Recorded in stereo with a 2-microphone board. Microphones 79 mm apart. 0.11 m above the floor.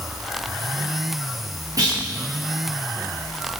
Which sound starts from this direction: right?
A clunk, at 1.8 s.